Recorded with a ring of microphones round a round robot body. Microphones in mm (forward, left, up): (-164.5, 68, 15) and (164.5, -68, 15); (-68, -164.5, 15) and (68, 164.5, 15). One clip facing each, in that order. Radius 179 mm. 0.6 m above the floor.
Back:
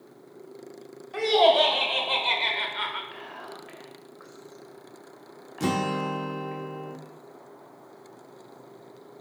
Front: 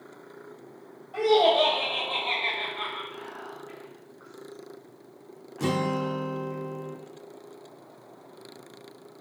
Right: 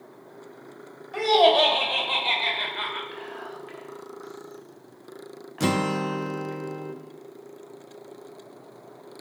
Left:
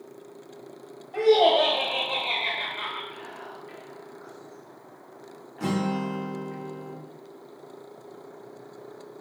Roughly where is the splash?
I don't hear a splash.